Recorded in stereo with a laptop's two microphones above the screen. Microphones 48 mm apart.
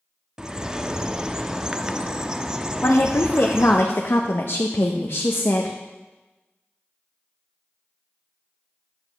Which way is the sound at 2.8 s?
55° left (ahead or behind).